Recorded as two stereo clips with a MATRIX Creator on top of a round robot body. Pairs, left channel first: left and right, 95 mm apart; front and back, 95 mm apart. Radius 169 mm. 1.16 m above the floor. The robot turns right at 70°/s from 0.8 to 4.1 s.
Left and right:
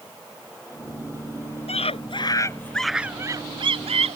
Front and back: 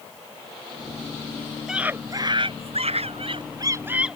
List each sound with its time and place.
1.7 s a scream: 95° left; by 4.2 s 95° right